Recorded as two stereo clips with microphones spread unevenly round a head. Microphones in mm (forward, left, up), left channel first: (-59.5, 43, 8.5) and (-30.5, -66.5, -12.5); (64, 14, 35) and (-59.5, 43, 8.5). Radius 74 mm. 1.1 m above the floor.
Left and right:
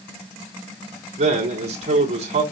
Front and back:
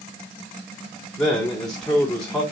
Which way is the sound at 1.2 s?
100° right.